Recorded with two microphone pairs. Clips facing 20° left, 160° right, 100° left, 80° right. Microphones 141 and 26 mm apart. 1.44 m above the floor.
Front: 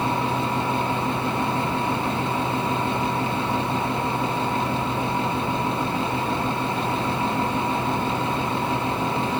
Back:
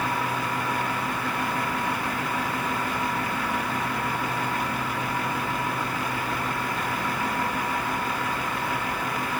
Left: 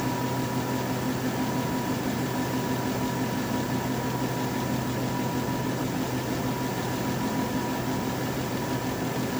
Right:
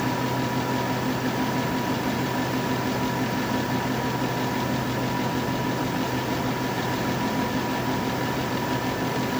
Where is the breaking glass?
I don't hear breaking glass.